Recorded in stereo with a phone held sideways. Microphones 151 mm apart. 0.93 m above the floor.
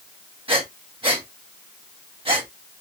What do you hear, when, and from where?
0.5 s breathing: 35° right (ahead or behind), 0.9 m